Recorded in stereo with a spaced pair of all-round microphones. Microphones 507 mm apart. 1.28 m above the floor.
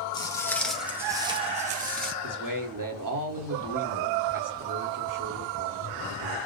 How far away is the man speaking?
About 1.3 m.